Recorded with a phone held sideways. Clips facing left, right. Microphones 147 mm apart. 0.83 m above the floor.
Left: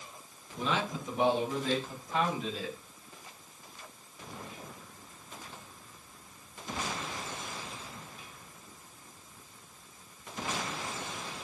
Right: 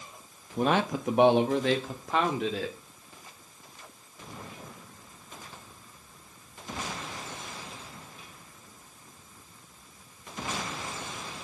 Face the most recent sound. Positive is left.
turn(degrees=-80)